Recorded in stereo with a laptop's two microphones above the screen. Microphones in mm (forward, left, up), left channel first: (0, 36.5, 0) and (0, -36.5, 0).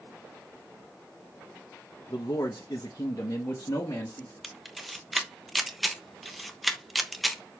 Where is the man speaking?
60° left (ahead or behind), 1.1 m; by 4.3 s 45° left (ahead or behind), 1.6 m.